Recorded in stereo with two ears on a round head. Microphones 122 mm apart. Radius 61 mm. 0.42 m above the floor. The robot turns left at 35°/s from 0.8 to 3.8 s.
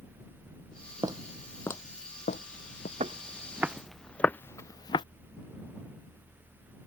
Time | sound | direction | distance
1.0 | footsteps | 30° right (ahead or behind) | ?
3.0 | footsteps | 45° right (ahead or behind) | ?